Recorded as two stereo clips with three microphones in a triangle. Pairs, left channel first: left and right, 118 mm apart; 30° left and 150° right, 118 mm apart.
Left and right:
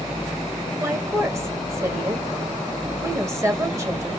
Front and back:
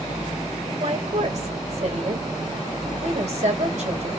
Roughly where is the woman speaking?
Behind right.